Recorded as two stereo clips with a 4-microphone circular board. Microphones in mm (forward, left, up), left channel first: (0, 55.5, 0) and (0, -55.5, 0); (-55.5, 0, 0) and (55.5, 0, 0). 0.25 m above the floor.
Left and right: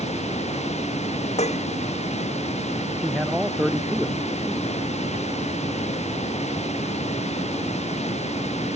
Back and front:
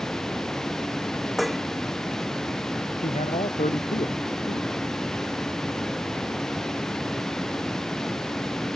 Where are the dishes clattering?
90° left.